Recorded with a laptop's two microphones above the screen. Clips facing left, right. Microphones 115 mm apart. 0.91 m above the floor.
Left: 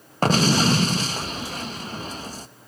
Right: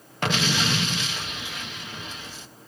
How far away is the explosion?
About 0.5 m.